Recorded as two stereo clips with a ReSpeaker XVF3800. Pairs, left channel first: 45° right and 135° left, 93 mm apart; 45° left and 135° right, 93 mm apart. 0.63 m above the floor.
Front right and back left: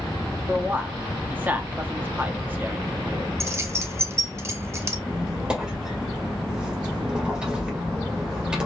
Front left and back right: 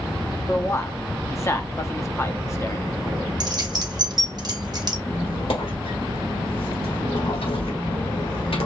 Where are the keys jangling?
170° right, 0.8 m.